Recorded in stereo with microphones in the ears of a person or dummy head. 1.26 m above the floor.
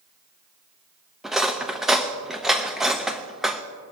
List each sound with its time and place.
1.2 s cutlery clinking: 5° right (ahead or behind), 0.7 m